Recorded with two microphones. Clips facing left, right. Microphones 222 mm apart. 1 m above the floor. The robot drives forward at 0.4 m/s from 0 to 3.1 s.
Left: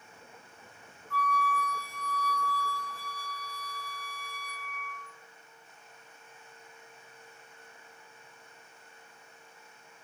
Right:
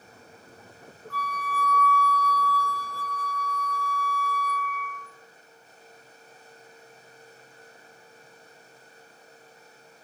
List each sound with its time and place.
1.1 s a flute: 70° right (ahead or behind), 0.9 m; by 5.1 s 50° right (ahead or behind), 1.1 m